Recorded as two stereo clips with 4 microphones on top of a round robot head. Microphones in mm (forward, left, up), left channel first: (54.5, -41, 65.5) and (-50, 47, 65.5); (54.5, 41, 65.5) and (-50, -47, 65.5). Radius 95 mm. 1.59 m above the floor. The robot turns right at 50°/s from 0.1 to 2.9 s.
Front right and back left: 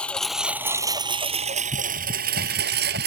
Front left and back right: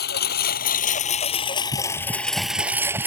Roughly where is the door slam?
No door slam in this recording.